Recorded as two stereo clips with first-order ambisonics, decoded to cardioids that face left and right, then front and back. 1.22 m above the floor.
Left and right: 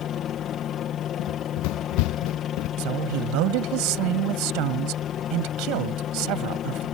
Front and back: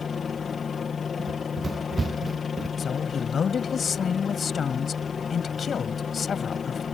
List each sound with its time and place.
0.0 s a helicopter: 60° left
1.2 s running footsteps: 105° left
2.8 s a woman speaking: 70° right